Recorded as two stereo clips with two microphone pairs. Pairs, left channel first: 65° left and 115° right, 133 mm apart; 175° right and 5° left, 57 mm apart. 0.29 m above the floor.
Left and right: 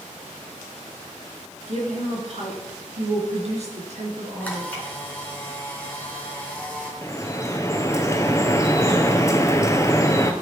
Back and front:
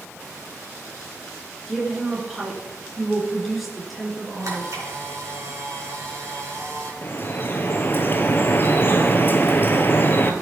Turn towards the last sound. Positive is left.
turn(degrees=130)